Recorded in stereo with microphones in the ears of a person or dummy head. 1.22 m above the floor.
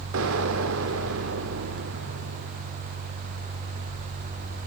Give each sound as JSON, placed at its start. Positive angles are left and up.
{"t": 0.1, "sound": "an explosion", "side_deg": -75, "distance_m": 2.0}